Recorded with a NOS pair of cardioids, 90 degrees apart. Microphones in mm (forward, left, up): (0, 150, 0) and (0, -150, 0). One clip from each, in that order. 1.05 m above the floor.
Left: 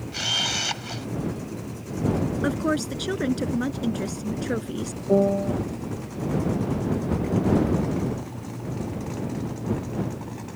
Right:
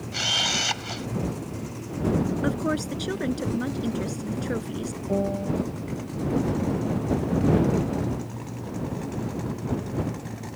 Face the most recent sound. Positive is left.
turn(degrees=40)